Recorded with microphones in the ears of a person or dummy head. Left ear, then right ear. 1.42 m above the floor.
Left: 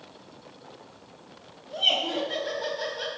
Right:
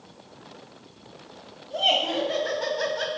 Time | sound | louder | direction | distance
1.7 | laughter | right 2 dB | 10° right (ahead or behind) | 1.5 m